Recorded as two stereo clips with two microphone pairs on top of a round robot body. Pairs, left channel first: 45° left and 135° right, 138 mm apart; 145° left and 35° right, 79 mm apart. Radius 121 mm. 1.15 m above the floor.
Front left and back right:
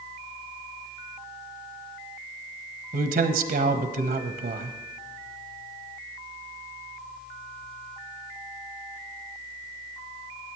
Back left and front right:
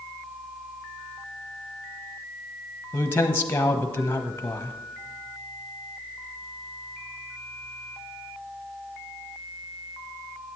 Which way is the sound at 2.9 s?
150° right.